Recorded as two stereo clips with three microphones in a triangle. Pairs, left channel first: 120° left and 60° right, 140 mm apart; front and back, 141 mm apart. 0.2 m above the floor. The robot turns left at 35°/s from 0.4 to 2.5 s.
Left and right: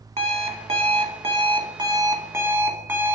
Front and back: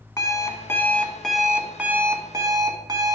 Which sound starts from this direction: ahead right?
An alarm clock, at 0.2 s.